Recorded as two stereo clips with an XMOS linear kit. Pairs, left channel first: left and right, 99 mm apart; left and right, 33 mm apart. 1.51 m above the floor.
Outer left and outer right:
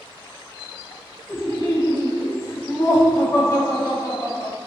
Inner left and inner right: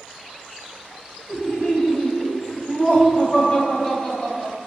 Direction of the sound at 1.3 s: 30° left (ahead or behind).